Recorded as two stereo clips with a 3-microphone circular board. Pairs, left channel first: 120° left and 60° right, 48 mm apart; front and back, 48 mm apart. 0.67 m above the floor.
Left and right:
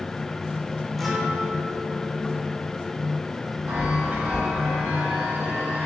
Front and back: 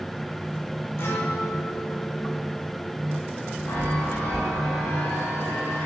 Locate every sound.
1.0 s a guitar: 30° left, 1.8 m
3.7 s a chime: straight ahead, 5.5 m